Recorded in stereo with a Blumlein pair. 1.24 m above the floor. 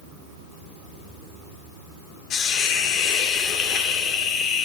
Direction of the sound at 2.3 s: 30° left.